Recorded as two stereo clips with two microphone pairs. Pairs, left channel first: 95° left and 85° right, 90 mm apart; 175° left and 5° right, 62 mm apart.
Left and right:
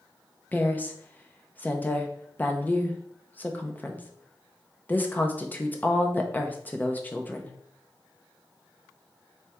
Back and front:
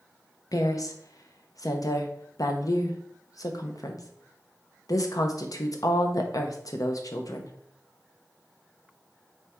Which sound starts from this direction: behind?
A woman speaking, at 0.5 s.